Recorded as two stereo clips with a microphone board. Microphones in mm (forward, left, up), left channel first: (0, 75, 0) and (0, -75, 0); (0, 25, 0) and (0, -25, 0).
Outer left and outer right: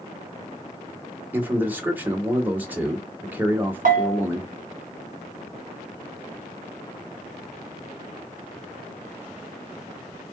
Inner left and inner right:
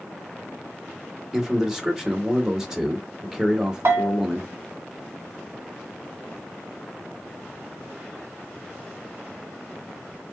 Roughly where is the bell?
Right.